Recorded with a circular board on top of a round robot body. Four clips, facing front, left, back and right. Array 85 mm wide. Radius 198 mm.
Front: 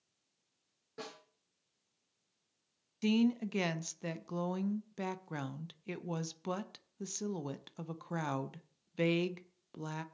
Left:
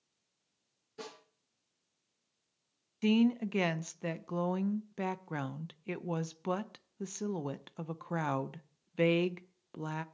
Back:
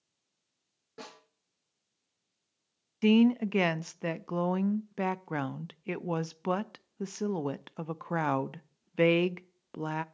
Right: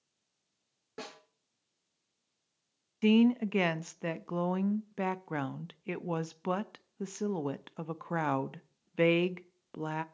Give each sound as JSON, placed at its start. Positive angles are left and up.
{"t": 1.0, "sound": "a snare drum", "azimuth_deg": -95, "distance_m": 7.0}
{"t": 3.0, "sound": "a woman speaking", "azimuth_deg": -155, "distance_m": 0.7}